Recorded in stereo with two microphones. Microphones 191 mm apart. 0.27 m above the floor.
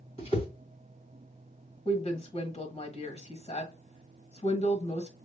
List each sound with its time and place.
0.2 s a whoosh: 30° left (ahead or behind), 1.8 m
1.9 s a woman speaking: 35° left (ahead or behind), 1.4 m